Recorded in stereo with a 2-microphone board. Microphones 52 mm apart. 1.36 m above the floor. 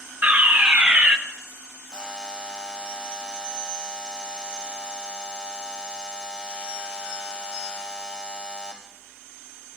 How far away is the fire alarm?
About 1.1 m.